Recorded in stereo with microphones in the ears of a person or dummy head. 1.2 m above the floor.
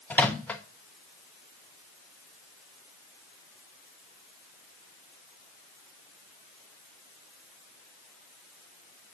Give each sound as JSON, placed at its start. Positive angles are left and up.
{"t": 0.1, "sound": "a microwave", "side_deg": 10, "distance_m": 0.6}